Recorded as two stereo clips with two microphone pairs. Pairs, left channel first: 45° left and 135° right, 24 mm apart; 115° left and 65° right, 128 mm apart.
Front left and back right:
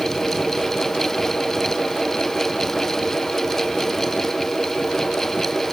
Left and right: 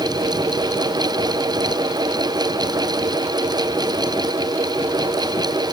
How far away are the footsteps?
No footsteps in this recording.